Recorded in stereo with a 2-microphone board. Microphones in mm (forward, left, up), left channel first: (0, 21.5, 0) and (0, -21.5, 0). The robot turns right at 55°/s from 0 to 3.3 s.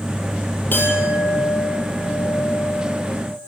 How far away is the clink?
About 4.5 m.